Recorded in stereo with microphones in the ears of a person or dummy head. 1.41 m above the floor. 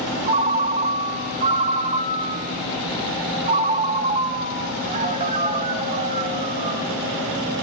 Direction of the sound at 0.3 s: 30° right (ahead or behind).